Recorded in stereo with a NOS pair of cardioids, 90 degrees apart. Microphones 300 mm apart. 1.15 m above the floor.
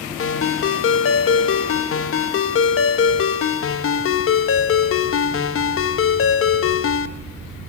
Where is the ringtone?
45° left, 0.9 m.